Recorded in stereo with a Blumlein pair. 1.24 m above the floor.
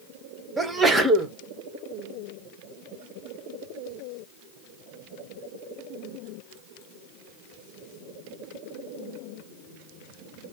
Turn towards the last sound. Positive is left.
turn(degrees=-10)